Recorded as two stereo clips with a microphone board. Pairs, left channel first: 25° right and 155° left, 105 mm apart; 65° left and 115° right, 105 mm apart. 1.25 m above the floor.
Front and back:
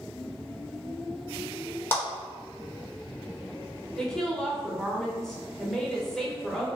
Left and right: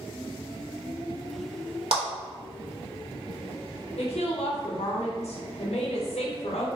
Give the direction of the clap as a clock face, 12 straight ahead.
3 o'clock.